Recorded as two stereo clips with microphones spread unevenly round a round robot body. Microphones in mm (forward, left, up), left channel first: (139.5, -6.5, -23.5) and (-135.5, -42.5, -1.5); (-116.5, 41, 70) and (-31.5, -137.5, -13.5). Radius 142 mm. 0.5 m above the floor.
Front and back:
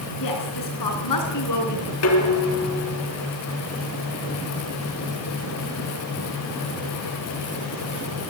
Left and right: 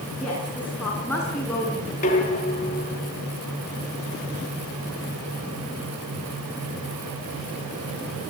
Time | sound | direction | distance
0.2 | a woman speaking | 25° left | 6 m
2.0 | dishes clattering | 50° left | 3 m